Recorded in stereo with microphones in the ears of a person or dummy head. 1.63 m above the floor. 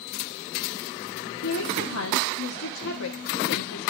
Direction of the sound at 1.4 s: 70° left (ahead or behind).